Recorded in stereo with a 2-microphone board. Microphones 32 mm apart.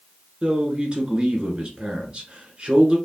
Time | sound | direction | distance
0.4 | a man speaking | 30° right (ahead or behind) | 1.5 m